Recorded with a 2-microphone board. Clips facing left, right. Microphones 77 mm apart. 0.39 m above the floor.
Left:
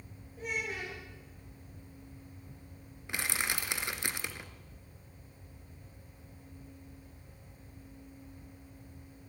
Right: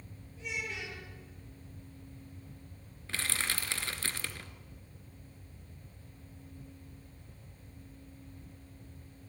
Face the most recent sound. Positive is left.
turn(degrees=15)  # may be behind; listen again after turning